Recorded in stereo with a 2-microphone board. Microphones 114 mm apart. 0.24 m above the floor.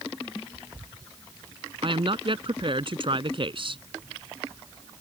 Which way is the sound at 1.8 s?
50° right (ahead or behind).